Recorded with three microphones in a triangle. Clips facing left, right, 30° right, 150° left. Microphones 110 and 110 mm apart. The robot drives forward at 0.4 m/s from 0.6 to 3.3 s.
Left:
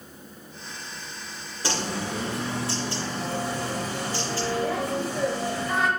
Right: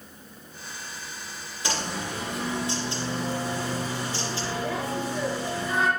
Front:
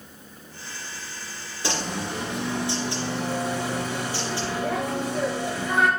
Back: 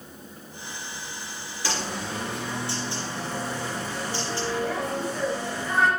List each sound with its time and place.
1.6 s a bird: 35° left, 3 m; by 5.9 s 45° left, 2.5 m